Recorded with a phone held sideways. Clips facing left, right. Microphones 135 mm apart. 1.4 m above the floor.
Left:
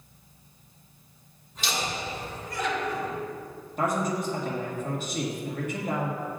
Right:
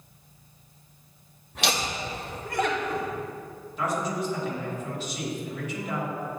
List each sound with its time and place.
1.6 s laughter: 65° right (ahead or behind), 0.9 m; by 3.1 s 45° right (ahead or behind), 1.6 m
3.8 s a man speaking: 50° left (ahead or behind), 1.7 m